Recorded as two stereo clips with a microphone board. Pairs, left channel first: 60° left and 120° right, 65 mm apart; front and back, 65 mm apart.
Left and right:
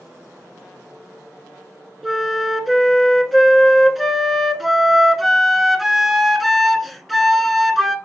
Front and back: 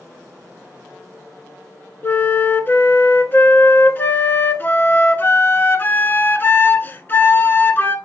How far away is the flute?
About 0.6 m.